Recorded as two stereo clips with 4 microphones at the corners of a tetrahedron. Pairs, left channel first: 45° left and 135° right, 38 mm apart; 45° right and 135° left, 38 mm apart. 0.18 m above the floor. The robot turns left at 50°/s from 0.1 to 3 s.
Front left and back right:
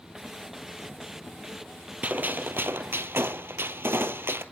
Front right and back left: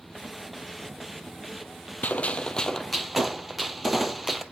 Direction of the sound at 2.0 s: 85° right.